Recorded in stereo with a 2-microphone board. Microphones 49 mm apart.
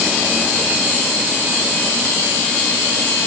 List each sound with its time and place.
Only background noise.